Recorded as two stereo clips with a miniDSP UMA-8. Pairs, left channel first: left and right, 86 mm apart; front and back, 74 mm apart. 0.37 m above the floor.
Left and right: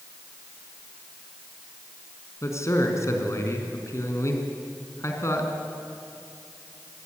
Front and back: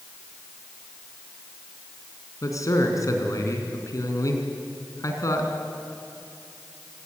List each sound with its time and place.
2.4 s a man speaking: 40° left, 4 m